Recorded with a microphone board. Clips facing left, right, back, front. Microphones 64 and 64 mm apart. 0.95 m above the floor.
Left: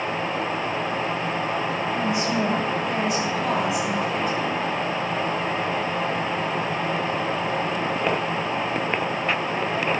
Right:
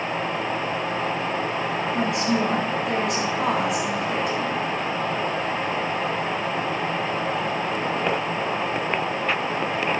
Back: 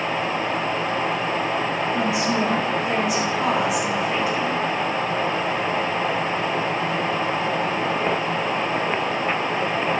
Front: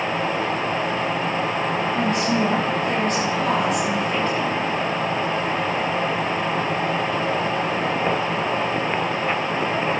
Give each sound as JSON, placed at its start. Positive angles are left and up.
{"t": 1.9, "sound": "a woman speaking", "azimuth_deg": -100, "distance_m": 6.0}